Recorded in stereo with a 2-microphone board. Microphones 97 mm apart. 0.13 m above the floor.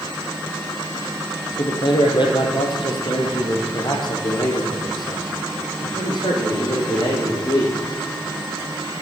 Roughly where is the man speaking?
Left.